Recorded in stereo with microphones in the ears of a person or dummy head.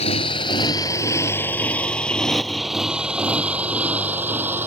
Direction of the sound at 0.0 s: 35° left (ahead or behind).